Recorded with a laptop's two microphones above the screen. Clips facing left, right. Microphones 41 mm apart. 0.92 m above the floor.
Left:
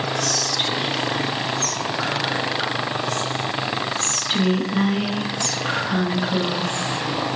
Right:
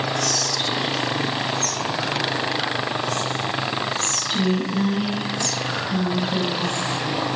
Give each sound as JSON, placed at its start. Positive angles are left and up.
{"t": 0.2, "sound": "whispering", "side_deg": 55, "distance_m": 1.4}